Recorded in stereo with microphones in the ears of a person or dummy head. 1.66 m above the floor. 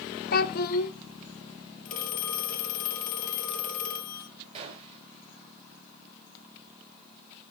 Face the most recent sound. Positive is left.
turn(degrees=-35)  # may be behind; listen again after turning